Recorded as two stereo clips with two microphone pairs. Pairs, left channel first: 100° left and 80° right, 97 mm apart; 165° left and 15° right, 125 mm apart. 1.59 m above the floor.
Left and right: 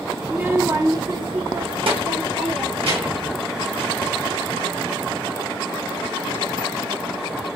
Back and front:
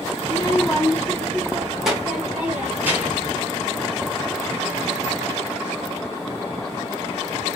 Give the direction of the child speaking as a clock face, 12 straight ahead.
5 o'clock.